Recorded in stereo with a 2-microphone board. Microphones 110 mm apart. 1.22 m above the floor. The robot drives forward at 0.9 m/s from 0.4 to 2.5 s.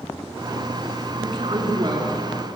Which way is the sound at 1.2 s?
50° right (ahead or behind).